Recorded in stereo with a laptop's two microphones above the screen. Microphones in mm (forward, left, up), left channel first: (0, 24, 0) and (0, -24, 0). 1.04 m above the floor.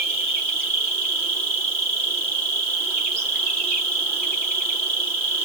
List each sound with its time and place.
0.0 s an insect: 20° left (ahead or behind), 5 m